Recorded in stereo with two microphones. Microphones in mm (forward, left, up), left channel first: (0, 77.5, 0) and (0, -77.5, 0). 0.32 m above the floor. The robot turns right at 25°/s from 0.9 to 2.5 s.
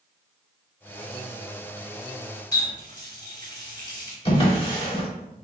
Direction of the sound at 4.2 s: 35° left (ahead or behind).